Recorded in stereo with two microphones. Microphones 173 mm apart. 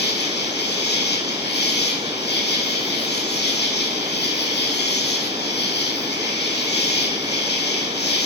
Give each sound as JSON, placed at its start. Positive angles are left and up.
{"t": 0.0, "sound": "an insect", "side_deg": 80, "distance_m": 4.0}